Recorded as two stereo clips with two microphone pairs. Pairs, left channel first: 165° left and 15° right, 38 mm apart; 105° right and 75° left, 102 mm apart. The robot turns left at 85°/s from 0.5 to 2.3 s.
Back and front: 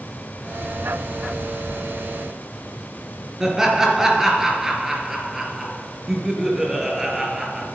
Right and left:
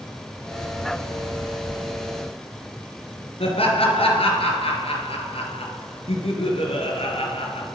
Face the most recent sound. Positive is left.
turn(degrees=-95)